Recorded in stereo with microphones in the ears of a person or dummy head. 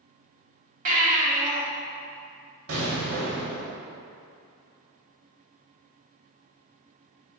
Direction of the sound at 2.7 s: 65° right (ahead or behind).